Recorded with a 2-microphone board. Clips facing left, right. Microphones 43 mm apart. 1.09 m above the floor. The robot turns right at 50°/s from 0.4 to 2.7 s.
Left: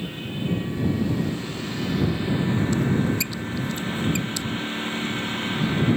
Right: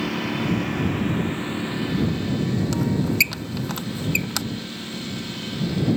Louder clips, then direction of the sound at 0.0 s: Right 6 dB; 80° right.